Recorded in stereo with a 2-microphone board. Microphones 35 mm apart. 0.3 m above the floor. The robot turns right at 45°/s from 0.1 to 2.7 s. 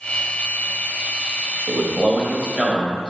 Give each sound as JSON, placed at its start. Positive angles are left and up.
{"t": 1.7, "sound": "a man speaking", "side_deg": -25, "distance_m": 1.4}